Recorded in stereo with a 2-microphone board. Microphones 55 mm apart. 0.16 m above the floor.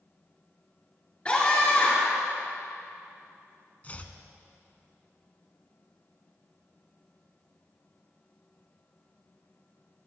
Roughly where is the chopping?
Left.